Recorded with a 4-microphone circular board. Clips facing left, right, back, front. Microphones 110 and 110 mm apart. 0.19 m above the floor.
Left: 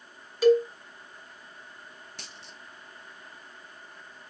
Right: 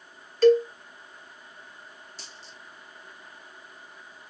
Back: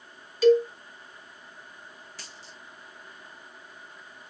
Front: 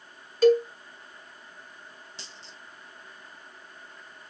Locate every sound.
0.4 s a cowbell: 15° left, 0.9 m
2.2 s a dropped coin: 65° left, 1.0 m